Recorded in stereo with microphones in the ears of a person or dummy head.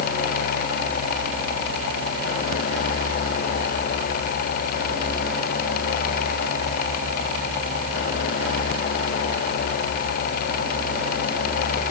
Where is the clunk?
I don't hear a clunk.